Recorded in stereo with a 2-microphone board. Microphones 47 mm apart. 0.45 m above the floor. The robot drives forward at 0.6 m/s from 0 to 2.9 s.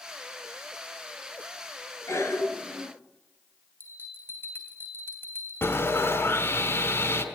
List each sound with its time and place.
2.1 s a cough: 80° left, 6 m; by 2.9 s 75° left (ahead or behind), 6 m
3.8 s a bell: 55° left (ahead or behind), 2.5 m
5.6 s sawing: 65° left (ahead or behind), 2 m